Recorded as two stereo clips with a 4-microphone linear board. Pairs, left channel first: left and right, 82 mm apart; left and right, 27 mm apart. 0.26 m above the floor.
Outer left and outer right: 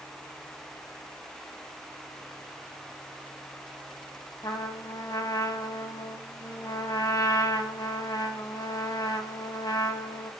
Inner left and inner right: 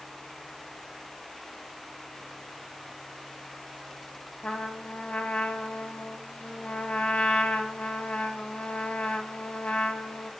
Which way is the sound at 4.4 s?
55° left (ahead or behind).